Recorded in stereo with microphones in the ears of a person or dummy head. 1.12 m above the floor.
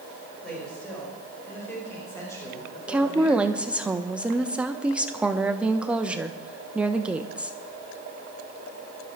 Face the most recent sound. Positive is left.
turn(degrees=-10)  # may be behind; listen again after turning